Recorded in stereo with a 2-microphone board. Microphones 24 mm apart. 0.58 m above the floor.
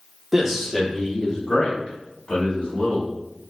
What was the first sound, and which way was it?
A man speaking, 10° right (ahead or behind).